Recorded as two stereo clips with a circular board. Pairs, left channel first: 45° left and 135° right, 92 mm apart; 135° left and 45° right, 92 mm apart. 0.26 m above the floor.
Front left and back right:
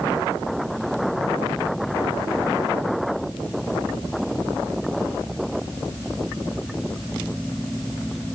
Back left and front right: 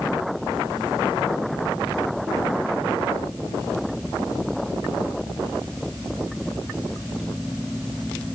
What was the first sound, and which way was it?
Only background noise.